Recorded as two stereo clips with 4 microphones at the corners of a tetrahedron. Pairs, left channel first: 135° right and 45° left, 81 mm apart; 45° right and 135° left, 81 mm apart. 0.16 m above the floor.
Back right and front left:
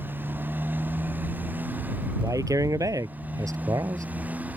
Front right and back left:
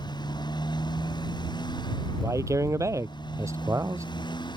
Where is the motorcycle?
20° right; by 4.6 s 25° right.